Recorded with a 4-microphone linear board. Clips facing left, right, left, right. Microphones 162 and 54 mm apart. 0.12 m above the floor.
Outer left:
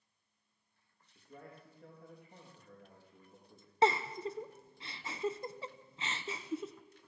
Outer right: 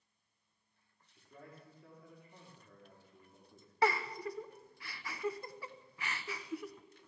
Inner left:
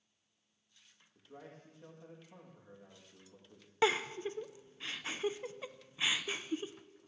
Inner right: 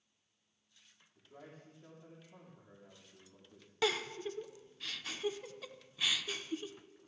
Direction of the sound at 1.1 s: 60° left (ahead or behind).